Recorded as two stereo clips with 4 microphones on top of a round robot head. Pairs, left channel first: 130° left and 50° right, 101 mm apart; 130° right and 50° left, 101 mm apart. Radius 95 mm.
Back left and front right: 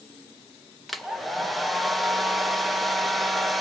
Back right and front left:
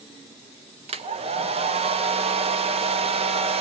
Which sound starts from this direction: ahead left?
A hair dryer, at 0.9 s.